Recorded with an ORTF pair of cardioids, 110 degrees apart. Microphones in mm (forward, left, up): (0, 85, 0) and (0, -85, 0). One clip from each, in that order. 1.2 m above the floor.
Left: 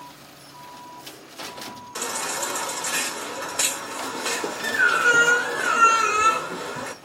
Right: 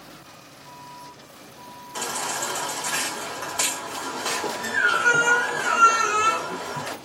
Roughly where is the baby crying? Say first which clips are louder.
Even; ahead.